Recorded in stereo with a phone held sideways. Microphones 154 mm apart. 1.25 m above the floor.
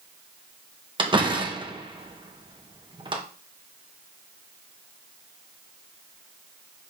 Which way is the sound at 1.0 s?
30° right (ahead or behind).